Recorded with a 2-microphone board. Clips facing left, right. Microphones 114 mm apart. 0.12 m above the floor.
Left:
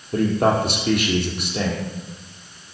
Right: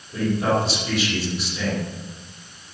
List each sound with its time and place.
0.1 s a man speaking: 55° left (ahead or behind), 4.5 m